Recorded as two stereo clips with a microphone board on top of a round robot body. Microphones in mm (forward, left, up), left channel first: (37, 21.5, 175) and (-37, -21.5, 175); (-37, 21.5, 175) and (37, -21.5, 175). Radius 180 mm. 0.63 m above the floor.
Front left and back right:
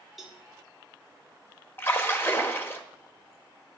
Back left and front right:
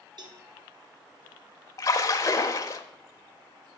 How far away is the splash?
About 1.0 m.